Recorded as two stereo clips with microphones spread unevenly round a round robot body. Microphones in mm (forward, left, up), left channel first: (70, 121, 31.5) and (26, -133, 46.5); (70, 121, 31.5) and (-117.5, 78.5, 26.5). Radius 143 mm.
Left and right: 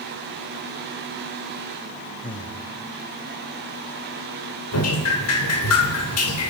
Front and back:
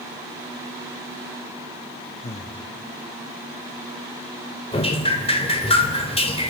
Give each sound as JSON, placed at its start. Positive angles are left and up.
{"t": 2.2, "sound": "breathing", "azimuth_deg": 35, "distance_m": 1.0}
{"t": 4.7, "sound": "dripping", "azimuth_deg": 70, "distance_m": 3.0}